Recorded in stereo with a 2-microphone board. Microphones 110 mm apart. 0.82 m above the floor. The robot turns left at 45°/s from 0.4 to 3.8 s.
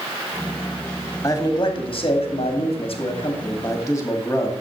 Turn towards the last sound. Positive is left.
turn(degrees=35)